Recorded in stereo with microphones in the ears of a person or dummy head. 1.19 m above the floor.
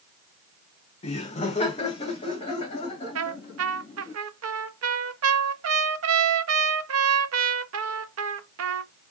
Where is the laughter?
30° left (ahead or behind), 0.7 m.